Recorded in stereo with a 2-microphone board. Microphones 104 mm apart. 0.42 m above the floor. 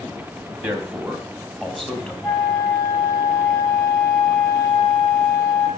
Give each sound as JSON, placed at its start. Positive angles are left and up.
{"t": 0.6, "sound": "a man speaking", "side_deg": -20, "distance_m": 2.5}
{"t": 2.2, "sound": "a flute", "side_deg": 20, "distance_m": 2.0}